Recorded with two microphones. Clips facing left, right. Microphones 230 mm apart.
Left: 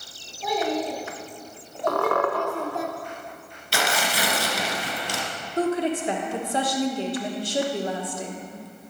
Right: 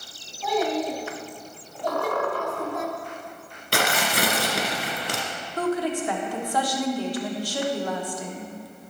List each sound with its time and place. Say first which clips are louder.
0.4 s a child speaking: right 1 dB; 20° left (ahead or behind), 3.5 m; by 2.9 s 35° left (ahead or behind), 1.1 m
1.9 s a squeak: left 3 dB; 65° left (ahead or behind), 0.8 m
3.7 s tearing paper: right 2 dB; 60° right (ahead or behind), 1.5 m
5.6 s a woman speaking: left 2 dB; 25° left (ahead or behind), 1.4 m